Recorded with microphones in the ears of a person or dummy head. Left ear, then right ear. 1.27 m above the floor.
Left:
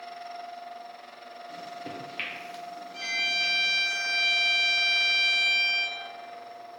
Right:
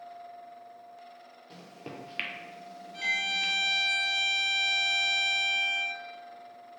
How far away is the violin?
About 1.1 m.